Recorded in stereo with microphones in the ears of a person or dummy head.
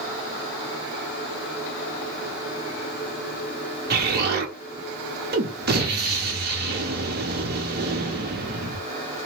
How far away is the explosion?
About 1.0 m.